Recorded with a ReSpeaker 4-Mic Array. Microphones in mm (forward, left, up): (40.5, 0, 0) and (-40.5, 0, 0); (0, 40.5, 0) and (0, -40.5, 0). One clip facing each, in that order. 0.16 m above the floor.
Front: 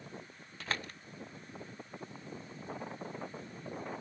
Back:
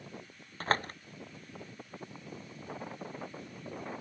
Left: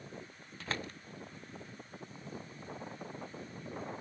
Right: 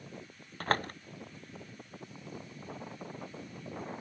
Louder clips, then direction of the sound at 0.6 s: Back 8 dB, right 9 dB; 130° right.